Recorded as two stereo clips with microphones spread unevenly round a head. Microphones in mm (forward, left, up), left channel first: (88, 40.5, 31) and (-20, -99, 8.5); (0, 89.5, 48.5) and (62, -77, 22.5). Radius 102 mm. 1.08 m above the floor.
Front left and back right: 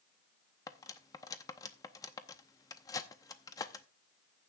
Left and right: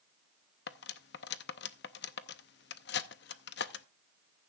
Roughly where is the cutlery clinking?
Behind left.